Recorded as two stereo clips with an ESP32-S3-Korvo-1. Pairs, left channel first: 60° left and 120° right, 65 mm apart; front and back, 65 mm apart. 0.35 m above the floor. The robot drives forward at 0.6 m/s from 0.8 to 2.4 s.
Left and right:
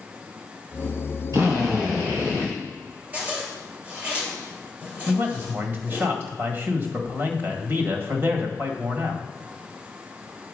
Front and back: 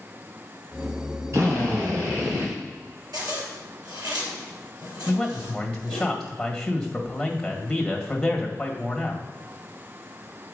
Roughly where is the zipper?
Behind.